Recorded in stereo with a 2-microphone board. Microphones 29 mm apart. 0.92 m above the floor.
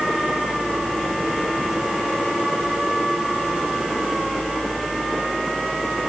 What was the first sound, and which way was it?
Only background noise.